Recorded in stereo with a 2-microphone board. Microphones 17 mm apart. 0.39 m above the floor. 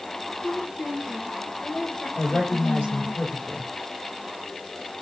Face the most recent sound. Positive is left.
turn(degrees=75)  # may be behind; listen again after turning